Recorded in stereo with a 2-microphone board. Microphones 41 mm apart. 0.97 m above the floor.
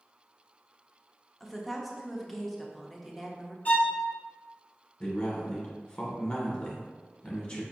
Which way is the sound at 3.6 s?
40° left (ahead or behind).